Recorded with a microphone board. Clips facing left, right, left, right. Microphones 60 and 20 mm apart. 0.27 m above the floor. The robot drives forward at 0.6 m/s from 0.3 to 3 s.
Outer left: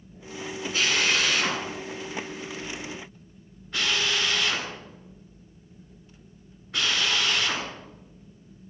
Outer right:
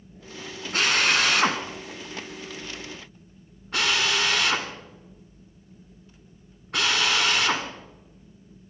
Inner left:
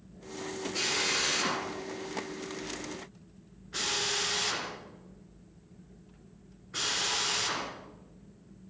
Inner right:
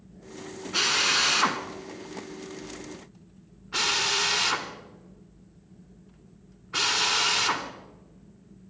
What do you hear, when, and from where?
0.7 s a drill: 60° right (ahead or behind), 2.5 m; by 7.7 s 65° right (ahead or behind), 2.5 m